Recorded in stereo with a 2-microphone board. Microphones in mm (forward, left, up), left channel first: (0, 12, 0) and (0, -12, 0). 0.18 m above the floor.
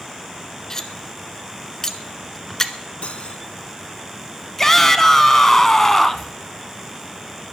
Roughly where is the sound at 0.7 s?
Centre.